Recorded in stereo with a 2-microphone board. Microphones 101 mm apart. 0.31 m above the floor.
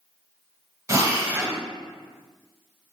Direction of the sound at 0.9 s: 30° right (ahead or behind).